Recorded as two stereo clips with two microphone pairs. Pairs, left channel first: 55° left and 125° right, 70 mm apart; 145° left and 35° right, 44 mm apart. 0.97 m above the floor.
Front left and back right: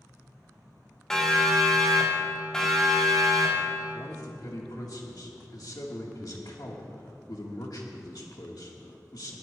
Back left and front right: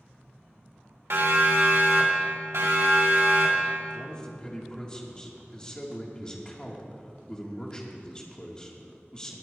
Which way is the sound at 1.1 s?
25° right.